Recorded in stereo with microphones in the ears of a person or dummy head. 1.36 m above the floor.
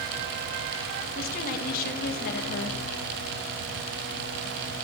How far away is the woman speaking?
About 2 m.